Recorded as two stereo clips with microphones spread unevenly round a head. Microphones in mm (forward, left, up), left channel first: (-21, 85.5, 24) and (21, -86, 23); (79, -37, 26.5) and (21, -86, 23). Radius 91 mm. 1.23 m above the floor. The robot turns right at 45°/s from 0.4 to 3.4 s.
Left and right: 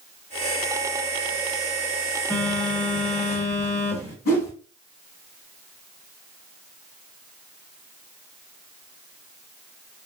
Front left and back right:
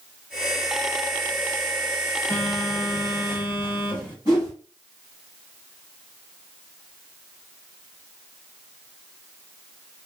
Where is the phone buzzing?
30° left, 1.0 m; by 4.2 s 80° left, 1.0 m.